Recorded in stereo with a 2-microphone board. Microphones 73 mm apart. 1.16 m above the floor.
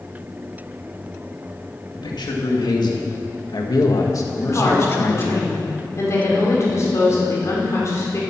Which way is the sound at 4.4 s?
40° left (ahead or behind).